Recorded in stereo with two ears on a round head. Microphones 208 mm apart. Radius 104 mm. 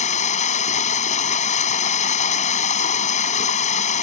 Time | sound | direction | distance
0.0 | running water | 35° left (ahead or behind) | ?